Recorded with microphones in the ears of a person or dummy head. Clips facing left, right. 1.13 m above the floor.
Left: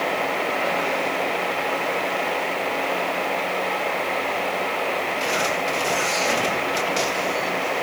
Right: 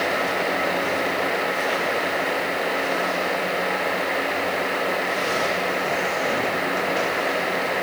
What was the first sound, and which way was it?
Only background noise.